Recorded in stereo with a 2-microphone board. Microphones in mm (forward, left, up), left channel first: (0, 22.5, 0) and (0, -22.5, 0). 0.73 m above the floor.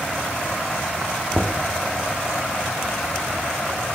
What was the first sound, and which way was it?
Knocking, 20° right (ahead or behind).